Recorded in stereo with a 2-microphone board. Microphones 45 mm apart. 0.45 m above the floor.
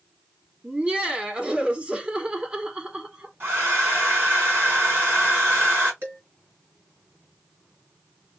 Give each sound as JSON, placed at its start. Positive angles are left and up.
{"t": 0.6, "sound": "laughter", "side_deg": -25, "distance_m": 1.3}
{"t": 3.4, "sound": "a hair dryer", "side_deg": -55, "distance_m": 4.0}
{"t": 6.0, "sound": "dishes clattering", "side_deg": -60, "distance_m": 3.0}